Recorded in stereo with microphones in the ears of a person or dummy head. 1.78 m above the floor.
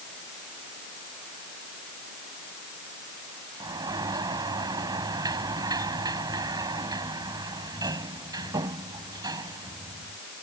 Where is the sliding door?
20° right (ahead or behind).